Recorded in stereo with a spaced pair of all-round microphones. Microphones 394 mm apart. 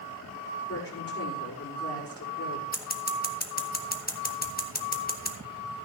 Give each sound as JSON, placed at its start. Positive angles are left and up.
{"t": 0.7, "sound": "a woman speaking", "side_deg": 35, "distance_m": 5.0}
{"t": 2.7, "sound": "scissors", "side_deg": 25, "distance_m": 1.3}